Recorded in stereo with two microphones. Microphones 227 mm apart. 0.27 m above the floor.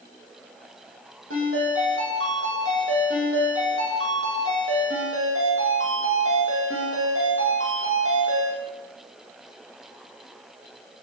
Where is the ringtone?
65° right (ahead or behind), 6.5 m.